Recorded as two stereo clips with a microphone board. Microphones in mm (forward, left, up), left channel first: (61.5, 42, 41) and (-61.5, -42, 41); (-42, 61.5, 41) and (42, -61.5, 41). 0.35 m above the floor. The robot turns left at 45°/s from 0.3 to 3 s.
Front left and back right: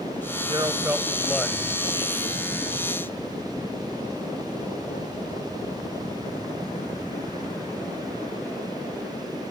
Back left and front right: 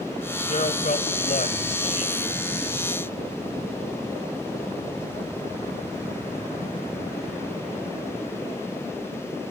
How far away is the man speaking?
About 1.6 m.